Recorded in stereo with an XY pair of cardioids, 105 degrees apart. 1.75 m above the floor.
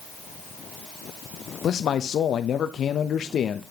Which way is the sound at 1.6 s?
55° left.